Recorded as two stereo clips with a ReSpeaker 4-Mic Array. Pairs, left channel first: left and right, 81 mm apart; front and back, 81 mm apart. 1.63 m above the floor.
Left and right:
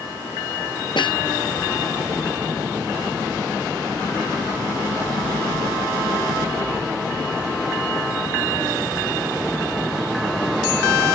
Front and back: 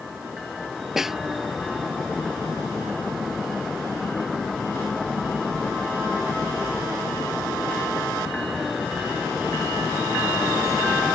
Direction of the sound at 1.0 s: 95° left.